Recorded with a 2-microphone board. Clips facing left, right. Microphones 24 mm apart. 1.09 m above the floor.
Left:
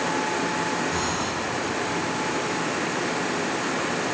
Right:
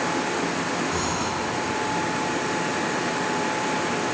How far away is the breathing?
About 6.5 m.